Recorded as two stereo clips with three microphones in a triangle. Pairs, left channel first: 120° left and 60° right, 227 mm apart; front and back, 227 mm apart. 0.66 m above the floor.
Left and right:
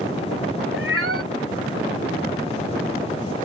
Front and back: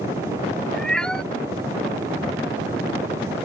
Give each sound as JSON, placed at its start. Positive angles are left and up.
{"t": 0.7, "sound": "a cat meowing", "azimuth_deg": -85}